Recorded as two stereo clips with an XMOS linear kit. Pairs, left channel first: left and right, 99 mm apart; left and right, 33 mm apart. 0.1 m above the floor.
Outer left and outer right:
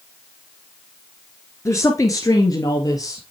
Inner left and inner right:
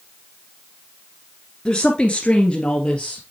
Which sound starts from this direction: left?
A woman speaking, at 1.6 s.